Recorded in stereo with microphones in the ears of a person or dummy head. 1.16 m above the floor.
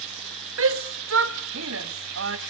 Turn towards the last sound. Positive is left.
turn(degrees=-65)  # may be behind; listen again after turning